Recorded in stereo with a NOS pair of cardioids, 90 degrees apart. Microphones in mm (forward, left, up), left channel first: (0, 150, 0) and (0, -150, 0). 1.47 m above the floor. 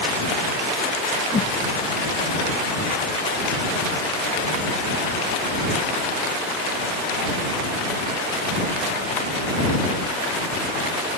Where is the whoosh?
25° left.